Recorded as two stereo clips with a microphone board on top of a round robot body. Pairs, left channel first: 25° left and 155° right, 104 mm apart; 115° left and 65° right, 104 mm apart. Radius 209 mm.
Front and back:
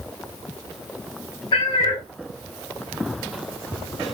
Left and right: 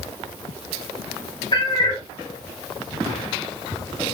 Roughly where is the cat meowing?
Ahead left.